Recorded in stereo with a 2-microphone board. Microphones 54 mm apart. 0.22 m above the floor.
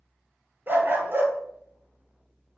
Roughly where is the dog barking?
Right.